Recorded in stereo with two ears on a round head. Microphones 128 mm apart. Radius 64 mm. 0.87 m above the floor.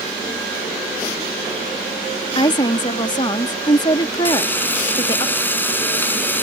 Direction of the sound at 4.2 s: 15° left (ahead or behind).